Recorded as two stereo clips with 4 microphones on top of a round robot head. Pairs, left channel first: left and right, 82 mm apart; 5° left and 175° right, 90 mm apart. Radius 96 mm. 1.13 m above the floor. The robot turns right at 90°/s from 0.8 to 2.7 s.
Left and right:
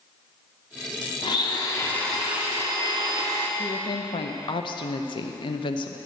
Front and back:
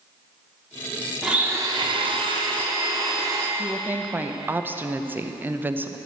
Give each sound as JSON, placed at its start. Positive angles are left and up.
{"t": 1.2, "sound": "a blender", "azimuth_deg": 95, "distance_m": 1.5}
{"t": 3.6, "sound": "a woman speaking", "azimuth_deg": 115, "distance_m": 0.7}